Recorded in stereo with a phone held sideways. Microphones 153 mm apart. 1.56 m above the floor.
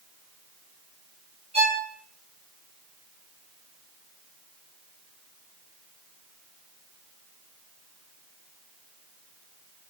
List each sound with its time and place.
1.5 s a violin: 45° right (ahead or behind), 4 m